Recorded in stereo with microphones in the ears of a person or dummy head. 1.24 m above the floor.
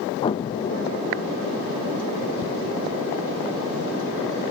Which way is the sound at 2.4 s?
50° left (ahead or behind).